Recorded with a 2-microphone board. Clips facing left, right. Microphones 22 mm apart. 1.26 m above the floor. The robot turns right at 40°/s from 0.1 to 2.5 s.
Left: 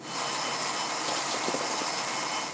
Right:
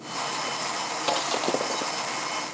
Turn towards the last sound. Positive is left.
turn(degrees=-5)